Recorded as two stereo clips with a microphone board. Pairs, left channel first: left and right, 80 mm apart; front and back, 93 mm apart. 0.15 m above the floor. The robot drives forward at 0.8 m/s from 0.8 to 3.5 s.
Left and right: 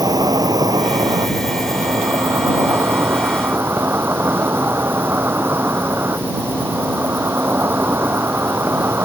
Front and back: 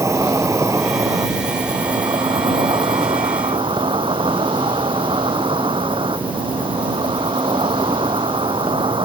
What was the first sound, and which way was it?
An insect, 125° right.